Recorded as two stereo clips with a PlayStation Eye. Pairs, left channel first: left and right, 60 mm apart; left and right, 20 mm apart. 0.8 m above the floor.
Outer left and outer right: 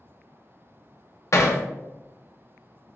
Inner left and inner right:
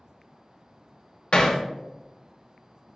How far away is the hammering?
About 0.6 m.